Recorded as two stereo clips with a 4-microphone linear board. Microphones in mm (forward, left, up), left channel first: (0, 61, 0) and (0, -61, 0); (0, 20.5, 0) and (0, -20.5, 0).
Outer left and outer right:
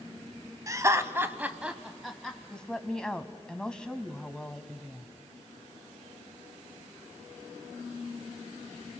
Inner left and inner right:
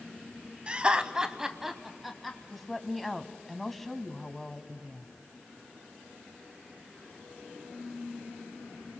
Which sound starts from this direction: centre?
A woman speaking, at 2.5 s.